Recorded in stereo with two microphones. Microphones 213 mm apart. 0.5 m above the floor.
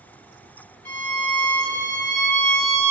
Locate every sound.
0.8 s a violin: 10° left (ahead or behind), 1.8 m